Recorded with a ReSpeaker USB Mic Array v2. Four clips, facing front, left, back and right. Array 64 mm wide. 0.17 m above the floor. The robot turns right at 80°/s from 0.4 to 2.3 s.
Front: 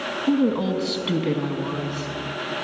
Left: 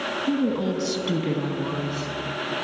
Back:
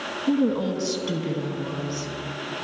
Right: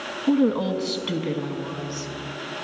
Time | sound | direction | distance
0.3 | a woman speaking | 70° right | 1.1 m